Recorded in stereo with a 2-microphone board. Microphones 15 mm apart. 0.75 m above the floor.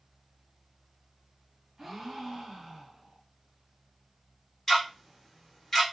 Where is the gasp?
25° right (ahead or behind), 1.3 m.